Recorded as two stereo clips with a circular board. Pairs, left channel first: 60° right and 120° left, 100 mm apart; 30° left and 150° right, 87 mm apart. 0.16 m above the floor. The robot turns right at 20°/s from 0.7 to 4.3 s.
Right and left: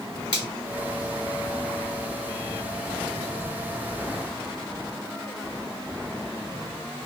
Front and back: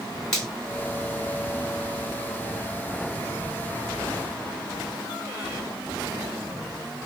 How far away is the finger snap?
About 1.1 m.